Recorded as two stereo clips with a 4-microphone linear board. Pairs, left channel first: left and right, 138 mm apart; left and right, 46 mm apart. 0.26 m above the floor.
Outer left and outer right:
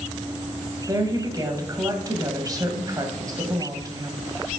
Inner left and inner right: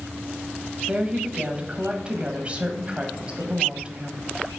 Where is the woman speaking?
30° right (ahead or behind), 1.3 m.